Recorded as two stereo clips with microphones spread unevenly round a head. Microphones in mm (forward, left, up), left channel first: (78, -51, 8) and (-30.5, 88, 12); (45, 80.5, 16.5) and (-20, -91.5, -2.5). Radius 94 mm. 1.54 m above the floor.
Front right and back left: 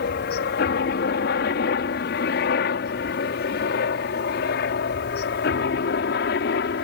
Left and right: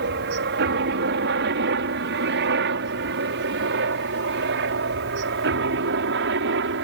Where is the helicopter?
85° right; by 6.8 s 90° right.